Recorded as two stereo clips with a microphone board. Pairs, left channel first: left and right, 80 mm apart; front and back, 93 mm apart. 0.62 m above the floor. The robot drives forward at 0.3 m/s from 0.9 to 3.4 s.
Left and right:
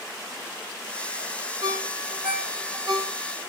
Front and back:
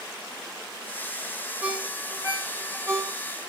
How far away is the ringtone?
About 1.3 m.